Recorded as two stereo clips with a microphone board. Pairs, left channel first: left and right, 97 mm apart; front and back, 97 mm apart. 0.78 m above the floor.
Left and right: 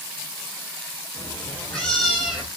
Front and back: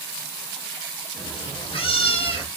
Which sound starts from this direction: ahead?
A cat meowing, at 1.1 s.